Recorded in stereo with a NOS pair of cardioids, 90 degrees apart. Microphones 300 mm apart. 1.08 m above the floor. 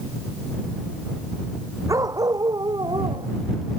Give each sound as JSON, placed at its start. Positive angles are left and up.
{"t": 1.9, "sound": "a dog barking", "azimuth_deg": -10}